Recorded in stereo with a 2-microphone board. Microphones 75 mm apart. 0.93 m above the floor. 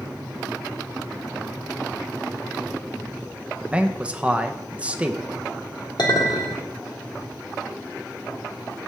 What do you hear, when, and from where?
3.6 s a man speaking: 15° right (ahead or behind), 0.5 m
6.0 s a clink: 70° left (ahead or behind), 1.7 m